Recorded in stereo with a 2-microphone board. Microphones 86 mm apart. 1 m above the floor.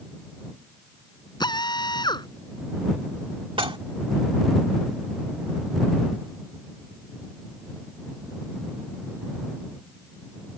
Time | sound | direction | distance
1.4 | a drill | 55° left (ahead or behind) | ?
3.6 | dishes clattering | 90° right | ?